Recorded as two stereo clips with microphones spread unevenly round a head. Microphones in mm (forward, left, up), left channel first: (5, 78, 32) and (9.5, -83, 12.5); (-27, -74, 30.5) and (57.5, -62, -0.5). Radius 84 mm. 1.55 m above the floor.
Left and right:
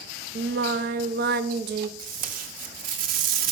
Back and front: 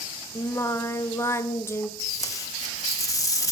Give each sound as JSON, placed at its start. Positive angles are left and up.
{"t": 0.3, "sound": "singing", "azimuth_deg": -110, "distance_m": 0.9}
{"t": 2.0, "sound": "tape being pulled", "azimuth_deg": -125, "distance_m": 2.0}